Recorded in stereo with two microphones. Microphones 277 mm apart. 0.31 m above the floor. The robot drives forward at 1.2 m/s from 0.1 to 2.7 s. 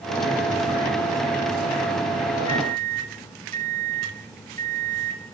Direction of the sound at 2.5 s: 30° right (ahead or behind).